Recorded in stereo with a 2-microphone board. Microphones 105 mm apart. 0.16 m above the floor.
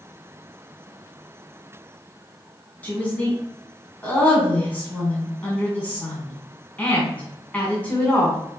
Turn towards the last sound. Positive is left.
turn(degrees=15)  # may be behind; listen again after turning